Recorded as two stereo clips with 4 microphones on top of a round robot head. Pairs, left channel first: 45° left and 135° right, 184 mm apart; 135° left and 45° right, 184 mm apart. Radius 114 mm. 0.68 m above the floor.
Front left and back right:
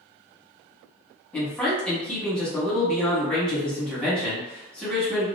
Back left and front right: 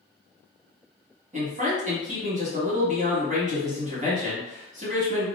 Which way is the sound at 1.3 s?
35° right.